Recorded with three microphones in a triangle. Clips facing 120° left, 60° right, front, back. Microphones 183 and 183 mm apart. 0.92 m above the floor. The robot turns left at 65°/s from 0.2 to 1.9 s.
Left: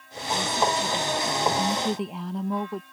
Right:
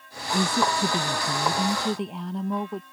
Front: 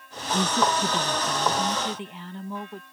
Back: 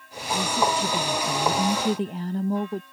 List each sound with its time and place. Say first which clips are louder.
0.3 s a woman speaking: right 2 dB, even; 50° right; by 2.8 s 150° right